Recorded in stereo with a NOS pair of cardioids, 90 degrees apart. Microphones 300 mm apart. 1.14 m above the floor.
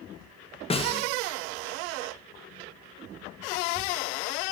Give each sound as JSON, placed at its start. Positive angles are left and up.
{"t": 0.7, "sound": "a snare drum", "azimuth_deg": 20, "distance_m": 0.8}